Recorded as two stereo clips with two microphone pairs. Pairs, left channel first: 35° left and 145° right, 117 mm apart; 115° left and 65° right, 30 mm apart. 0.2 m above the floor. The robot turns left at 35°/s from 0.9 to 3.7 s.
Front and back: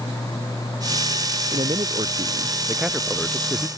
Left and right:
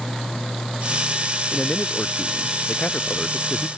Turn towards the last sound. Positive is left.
turn(degrees=100)